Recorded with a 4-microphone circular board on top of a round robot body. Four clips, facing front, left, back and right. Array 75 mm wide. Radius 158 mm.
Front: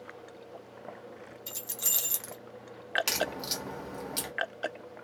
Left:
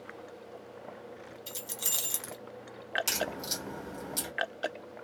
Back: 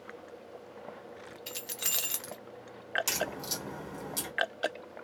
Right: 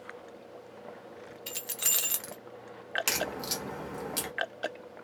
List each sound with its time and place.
1.5 s keys jangling: 125° right, 0.8 m
3.1 s a crack: 65° right, 1.1 m